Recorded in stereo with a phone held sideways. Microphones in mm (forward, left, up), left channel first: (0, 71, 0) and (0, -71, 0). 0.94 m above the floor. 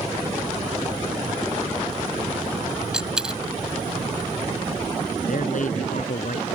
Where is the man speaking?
65° left (ahead or behind).